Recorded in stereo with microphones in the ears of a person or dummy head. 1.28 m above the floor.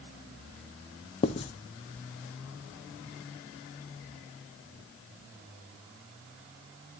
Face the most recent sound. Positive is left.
turn(degrees=30)  # may be behind; listen again after turning